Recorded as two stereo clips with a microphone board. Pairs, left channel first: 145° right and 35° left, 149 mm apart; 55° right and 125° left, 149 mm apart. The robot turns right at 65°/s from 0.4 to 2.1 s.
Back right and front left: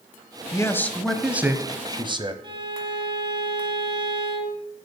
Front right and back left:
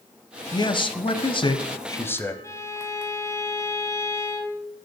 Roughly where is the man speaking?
Right.